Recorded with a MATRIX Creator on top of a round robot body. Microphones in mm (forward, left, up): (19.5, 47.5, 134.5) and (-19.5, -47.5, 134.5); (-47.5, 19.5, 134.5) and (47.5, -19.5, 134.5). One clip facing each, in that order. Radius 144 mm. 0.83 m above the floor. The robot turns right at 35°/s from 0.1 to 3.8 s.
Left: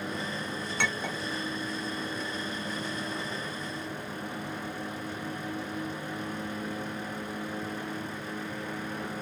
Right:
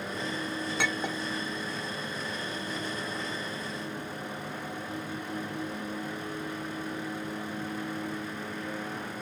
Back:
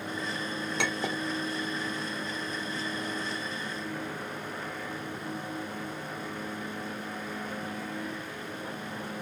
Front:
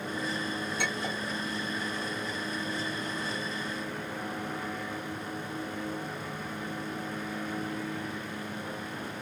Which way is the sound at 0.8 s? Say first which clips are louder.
Even, back 2 dB; 160° left.